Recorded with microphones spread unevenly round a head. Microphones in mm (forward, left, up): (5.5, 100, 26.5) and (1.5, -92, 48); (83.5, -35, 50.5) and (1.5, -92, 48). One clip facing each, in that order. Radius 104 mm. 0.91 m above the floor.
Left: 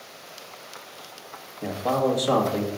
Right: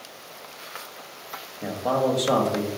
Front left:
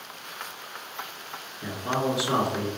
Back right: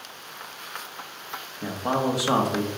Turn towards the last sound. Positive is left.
turn(degrees=180)